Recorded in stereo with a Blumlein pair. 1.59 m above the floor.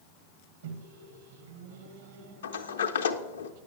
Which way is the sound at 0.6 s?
60° right.